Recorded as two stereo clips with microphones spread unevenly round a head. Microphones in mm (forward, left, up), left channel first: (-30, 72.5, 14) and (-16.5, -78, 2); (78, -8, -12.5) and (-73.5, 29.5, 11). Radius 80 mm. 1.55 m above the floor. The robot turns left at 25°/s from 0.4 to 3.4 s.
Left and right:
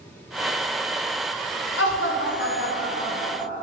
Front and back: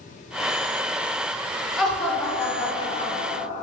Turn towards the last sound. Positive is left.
turn(degrees=35)